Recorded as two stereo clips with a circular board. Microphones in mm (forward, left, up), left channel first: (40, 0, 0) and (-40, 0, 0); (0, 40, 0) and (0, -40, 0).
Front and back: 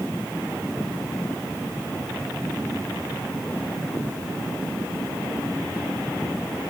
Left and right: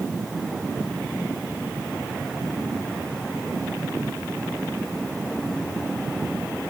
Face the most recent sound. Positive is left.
No sound to turn to.